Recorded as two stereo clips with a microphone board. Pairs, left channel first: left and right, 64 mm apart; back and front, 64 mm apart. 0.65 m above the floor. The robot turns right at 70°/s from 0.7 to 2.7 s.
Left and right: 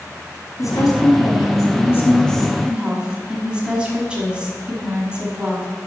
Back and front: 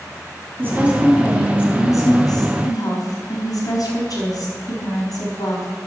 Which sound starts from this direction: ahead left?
A woman speaking, at 0.6 s.